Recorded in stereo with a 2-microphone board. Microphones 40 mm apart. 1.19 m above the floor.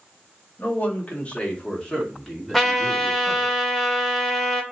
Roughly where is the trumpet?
Centre.